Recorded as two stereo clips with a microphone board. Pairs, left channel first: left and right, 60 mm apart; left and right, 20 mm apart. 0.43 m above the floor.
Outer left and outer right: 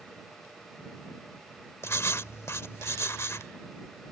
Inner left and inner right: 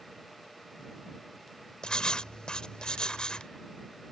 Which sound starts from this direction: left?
Writing, at 1.8 s.